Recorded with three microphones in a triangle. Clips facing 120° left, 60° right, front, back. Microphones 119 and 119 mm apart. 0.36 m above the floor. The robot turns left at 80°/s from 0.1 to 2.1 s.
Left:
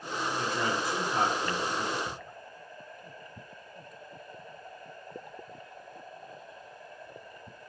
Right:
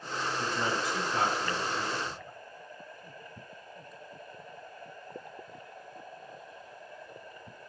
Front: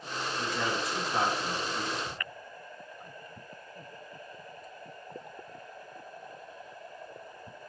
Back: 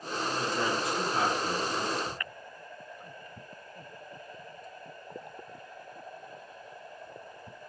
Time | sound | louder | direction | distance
0.4 | a man speaking | left 1 dB, back 1 dB | 125° left | 4 m
2.1 | ticking | left 1 dB, back 3 dB | 80° left | 2 m